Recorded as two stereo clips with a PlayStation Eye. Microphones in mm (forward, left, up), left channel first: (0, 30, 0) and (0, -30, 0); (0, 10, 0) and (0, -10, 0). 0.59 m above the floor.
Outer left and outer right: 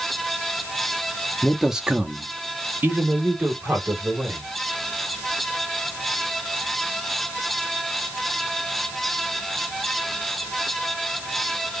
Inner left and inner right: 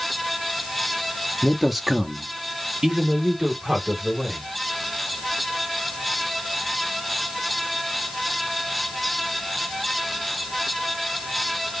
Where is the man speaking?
10° left (ahead or behind), 0.8 m; by 4.5 s 40° right (ahead or behind), 3 m.